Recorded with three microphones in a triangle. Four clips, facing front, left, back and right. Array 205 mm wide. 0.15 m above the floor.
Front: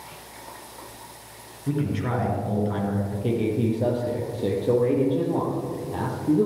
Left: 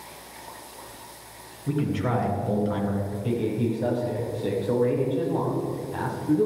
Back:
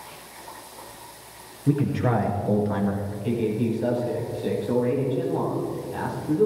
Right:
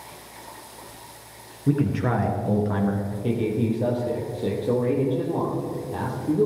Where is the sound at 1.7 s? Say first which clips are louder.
Right 3 dB, back 3 dB; 120° right, 2.5 m.